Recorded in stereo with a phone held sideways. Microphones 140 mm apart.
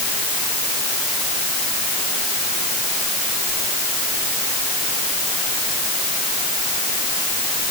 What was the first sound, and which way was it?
Only background noise.